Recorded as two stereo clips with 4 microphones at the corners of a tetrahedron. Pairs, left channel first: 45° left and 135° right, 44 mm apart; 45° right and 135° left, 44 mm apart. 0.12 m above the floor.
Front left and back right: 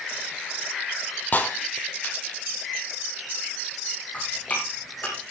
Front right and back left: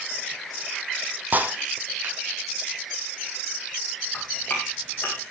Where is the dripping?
5° right, 8.5 m.